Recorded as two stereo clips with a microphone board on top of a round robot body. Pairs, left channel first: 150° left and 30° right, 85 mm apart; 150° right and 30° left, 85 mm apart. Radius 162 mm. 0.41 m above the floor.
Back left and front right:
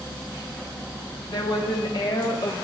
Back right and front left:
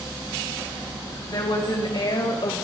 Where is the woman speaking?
175° left, 4 m; by 2.6 s 175° right, 2.5 m.